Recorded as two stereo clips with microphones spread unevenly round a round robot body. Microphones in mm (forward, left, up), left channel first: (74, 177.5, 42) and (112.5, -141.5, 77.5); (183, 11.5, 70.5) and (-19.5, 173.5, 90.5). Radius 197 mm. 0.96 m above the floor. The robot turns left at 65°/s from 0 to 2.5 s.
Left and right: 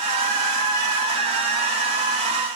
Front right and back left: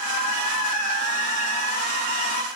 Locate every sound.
Only background noise.